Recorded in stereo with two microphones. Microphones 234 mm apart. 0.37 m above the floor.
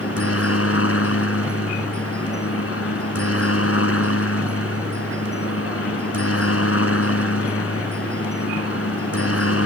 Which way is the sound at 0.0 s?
70° left (ahead or behind).